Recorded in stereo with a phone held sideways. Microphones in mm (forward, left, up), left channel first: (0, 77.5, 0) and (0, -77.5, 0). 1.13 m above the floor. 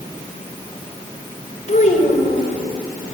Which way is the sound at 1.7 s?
55° left (ahead or behind).